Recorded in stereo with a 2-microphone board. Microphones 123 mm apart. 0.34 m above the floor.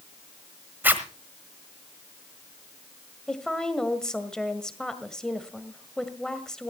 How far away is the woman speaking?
About 1.5 m.